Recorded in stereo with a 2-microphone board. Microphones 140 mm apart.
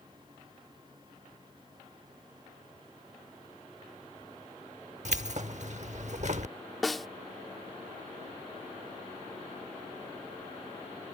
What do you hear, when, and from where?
5.0 s keys jangling: 55° right (ahead or behind)
6.8 s a snare drum: centre (ahead or behind)